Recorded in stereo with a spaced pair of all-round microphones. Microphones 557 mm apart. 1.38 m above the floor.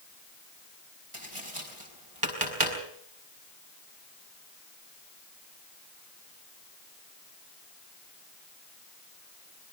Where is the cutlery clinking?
No cutlery clinking in this recording.